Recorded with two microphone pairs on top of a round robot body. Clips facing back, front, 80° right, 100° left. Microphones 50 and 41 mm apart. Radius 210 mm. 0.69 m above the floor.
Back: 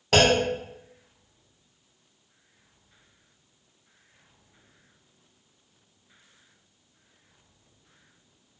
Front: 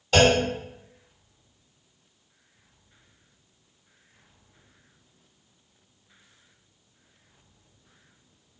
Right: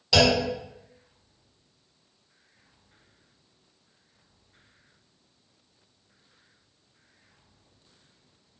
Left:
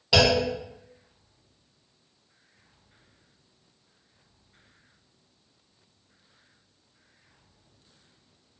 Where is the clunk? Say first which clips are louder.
Front 1 dB, even; 175° left, 2.5 m.